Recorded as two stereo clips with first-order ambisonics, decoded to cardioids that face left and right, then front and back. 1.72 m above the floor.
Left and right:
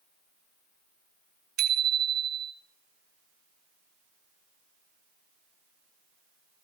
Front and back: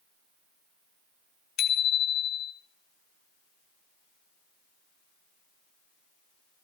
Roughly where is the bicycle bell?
Ahead right.